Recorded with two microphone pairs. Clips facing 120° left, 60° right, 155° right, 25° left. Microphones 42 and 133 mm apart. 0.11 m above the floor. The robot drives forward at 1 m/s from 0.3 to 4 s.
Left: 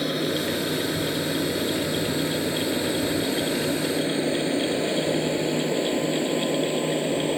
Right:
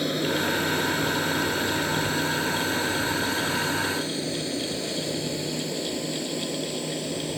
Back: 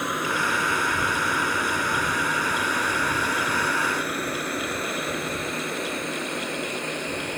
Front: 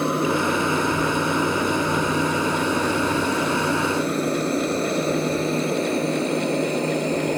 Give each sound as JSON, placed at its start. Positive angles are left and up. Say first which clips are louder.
{"t": 0.0, "sound": "an aircraft", "louder": "even, front 7 dB", "azimuth_deg": 35}